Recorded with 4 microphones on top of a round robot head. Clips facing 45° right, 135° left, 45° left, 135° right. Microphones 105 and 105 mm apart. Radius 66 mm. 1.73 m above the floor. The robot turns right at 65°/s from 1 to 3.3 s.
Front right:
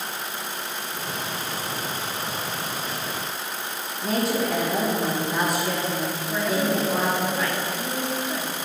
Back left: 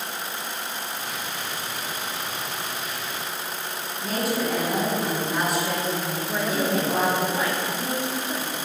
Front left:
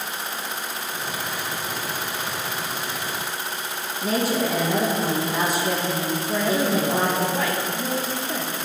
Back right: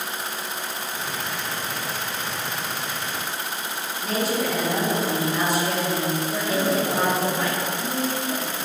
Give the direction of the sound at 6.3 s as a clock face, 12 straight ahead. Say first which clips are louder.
Front right 1 dB, front left 4 dB; 10 o'clock.